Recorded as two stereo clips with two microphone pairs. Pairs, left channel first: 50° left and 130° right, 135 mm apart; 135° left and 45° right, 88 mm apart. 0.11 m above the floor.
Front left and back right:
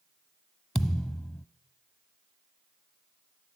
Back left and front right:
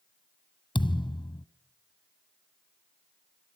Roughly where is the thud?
Behind left.